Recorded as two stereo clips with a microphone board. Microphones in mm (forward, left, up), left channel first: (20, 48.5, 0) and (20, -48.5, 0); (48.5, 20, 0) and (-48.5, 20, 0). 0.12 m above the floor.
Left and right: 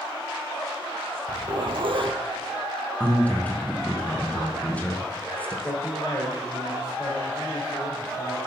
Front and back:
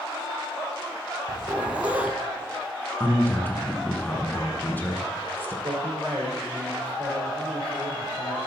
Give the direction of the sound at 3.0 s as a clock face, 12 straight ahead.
11 o'clock.